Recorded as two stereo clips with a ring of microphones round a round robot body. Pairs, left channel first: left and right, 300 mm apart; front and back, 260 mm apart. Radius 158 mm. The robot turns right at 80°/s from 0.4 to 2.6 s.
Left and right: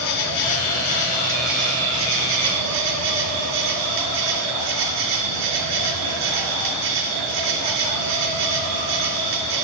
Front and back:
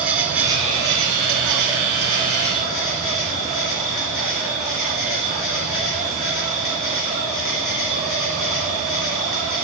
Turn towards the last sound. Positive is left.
turn(degrees=-90)